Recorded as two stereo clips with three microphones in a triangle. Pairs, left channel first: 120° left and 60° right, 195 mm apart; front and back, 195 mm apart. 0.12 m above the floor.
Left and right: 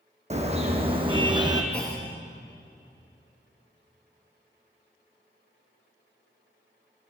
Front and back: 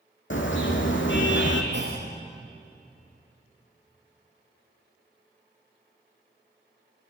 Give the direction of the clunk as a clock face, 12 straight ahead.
5 o'clock.